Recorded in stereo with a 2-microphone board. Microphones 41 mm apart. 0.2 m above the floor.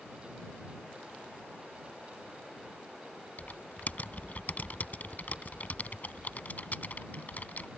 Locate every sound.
3.4 s typing on a keyboard: 45° left (ahead or behind)